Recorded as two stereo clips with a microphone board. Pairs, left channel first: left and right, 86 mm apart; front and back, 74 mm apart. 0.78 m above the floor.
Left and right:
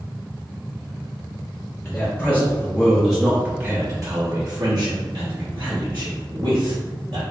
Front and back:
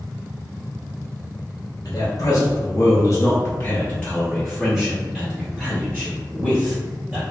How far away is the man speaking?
About 1.2 m.